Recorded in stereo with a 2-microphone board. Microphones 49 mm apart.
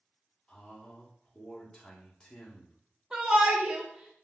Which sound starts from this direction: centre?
A shout, at 3.1 s.